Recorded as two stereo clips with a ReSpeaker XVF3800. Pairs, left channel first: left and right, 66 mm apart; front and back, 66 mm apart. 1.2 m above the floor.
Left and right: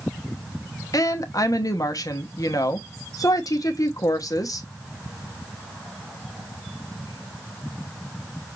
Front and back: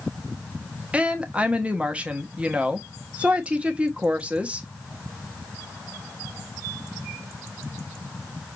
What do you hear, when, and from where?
0.9 s a woman speaking: 110° left, 1.0 m